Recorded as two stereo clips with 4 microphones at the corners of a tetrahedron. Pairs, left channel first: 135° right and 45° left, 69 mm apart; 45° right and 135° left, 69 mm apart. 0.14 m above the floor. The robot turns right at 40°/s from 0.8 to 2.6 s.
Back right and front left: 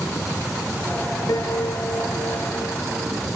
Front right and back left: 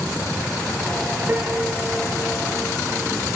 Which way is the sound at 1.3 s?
160° right.